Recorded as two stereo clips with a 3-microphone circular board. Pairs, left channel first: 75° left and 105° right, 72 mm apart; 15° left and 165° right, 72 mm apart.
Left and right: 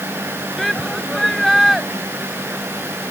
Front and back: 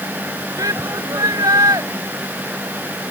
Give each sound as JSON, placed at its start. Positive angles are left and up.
{"t": 0.6, "sound": "a shout", "azimuth_deg": 165}